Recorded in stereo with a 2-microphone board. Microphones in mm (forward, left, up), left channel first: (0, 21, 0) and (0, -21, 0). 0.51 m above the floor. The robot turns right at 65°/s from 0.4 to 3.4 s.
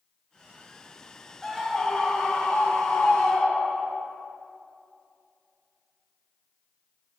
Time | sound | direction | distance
1.4 | a scream | straight ahead | 1.1 m